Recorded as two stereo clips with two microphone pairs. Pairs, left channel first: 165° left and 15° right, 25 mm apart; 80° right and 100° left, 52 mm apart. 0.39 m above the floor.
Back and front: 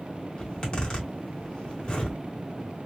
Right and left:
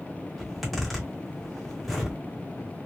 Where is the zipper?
165° right, 1.8 m.